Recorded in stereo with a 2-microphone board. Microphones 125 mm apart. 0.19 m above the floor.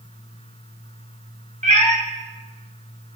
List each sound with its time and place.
1.6 s a cat meowing: 75° right (ahead or behind), 0.7 m